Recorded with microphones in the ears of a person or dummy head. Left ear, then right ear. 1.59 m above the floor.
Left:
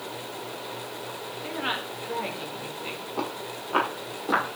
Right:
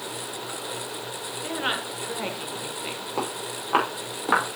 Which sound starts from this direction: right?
Footsteps, at 3.2 s.